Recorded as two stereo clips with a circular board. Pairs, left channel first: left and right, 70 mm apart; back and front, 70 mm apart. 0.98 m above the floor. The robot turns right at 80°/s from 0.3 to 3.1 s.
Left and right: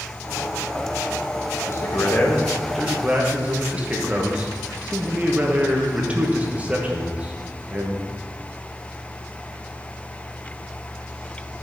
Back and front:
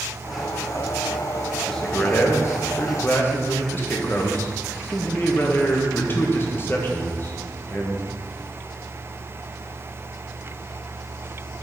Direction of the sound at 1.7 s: 100° left.